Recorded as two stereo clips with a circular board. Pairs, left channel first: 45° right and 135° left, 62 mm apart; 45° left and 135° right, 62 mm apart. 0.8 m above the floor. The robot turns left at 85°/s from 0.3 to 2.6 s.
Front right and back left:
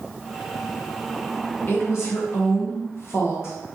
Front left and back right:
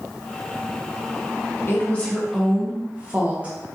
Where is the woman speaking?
5° left, 0.7 m; by 3.6 s 75° right, 0.7 m.